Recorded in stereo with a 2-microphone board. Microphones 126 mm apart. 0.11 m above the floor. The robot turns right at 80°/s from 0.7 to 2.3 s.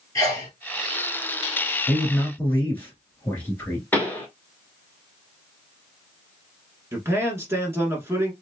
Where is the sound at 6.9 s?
20° right (ahead or behind), 1.3 m.